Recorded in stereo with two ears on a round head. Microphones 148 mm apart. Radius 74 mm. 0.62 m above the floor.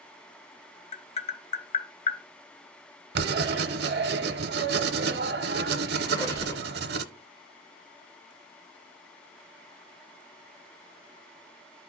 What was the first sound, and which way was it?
Tapping, 40° left (ahead or behind).